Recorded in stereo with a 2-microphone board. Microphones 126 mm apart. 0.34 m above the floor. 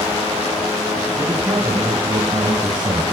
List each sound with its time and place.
1.2 s a man speaking: 20° right (ahead or behind), 4 m; by 3.0 s 35° right (ahead or behind), 5 m